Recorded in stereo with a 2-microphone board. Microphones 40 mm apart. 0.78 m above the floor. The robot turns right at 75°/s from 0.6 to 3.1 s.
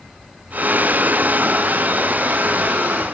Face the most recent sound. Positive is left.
No sound to turn to.